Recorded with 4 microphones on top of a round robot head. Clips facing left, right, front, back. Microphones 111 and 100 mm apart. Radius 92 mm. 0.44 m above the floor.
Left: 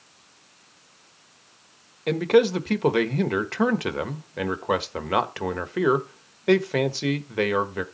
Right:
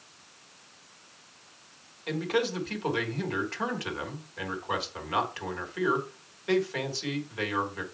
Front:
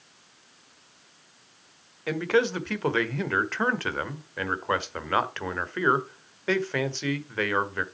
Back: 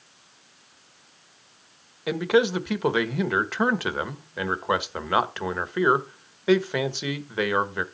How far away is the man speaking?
About 1.4 m.